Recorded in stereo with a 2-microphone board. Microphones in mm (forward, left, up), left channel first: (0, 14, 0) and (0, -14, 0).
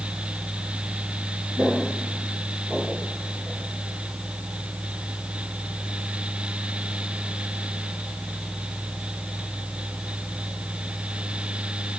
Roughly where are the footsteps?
Right.